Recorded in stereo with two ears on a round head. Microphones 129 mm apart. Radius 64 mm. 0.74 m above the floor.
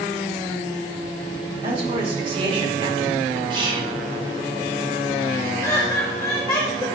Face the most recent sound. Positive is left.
turn(degrees=20)  # may be behind; listen again after turning